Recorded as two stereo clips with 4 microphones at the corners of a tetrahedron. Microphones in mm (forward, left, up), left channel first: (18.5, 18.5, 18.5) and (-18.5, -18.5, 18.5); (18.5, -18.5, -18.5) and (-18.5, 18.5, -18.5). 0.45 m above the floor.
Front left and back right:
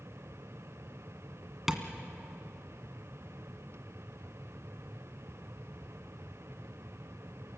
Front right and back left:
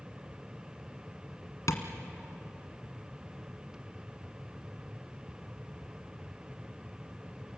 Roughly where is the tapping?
Ahead right.